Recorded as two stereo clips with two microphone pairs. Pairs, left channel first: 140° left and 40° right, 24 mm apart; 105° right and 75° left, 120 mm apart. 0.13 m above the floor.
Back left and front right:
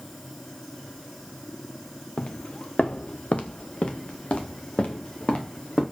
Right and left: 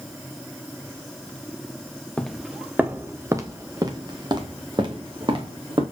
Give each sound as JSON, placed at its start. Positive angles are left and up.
{"t": 2.2, "sound": "footsteps", "azimuth_deg": 175, "distance_m": 0.7}